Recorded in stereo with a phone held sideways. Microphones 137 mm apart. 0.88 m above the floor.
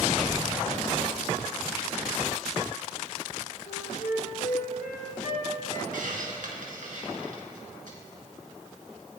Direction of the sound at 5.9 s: 75° right (ahead or behind).